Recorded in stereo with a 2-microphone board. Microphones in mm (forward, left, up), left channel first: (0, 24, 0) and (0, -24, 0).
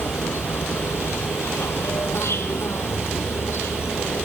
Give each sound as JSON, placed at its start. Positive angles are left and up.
{"t": 0.0, "sound": "an insect", "side_deg": 65, "distance_m": 1.3}